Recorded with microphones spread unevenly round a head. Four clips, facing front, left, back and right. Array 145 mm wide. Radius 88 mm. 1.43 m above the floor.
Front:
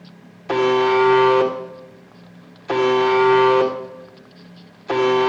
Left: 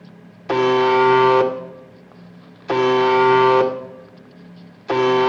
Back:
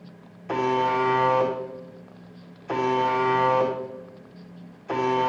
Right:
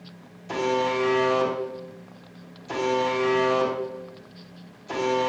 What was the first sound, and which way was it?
A buzzer, 40° left.